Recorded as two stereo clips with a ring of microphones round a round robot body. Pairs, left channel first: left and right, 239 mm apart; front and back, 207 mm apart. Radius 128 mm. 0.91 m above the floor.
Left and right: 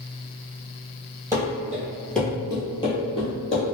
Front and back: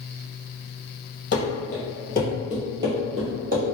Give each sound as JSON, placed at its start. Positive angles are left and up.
{"t": 1.3, "sound": "running footsteps", "azimuth_deg": -15, "distance_m": 1.2}